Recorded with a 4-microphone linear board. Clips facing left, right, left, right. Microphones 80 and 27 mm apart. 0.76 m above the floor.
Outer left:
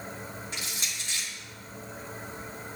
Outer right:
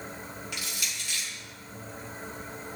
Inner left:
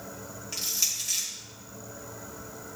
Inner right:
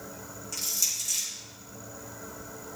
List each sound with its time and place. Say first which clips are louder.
0.5 s crushing: even, inner left 1 dB; 30° left (ahead or behind), 3.5 m